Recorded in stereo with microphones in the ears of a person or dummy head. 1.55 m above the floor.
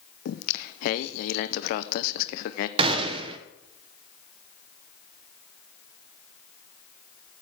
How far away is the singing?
About 0.5 m.